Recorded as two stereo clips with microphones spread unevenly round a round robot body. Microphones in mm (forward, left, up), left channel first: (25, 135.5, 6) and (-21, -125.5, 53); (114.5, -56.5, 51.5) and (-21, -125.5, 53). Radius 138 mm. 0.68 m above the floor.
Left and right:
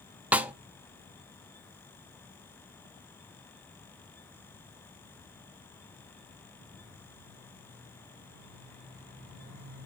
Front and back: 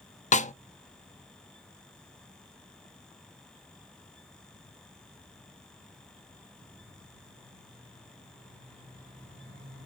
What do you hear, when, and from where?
0.3 s a snare drum: 10° right, 0.6 m